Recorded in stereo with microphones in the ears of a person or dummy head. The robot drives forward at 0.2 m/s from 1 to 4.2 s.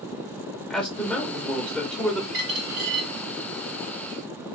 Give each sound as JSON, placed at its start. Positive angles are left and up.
{"t": 0.7, "sound": "a man speaking", "side_deg": 5, "distance_m": 0.5}
{"t": 2.3, "sound": "a dropped coin", "side_deg": -35, "distance_m": 1.4}